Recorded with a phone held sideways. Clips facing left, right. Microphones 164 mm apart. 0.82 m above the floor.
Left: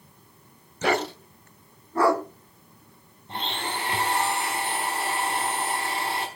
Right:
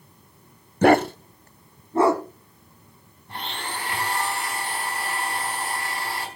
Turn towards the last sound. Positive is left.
turn(degrees=20)  # may be behind; listen again after turning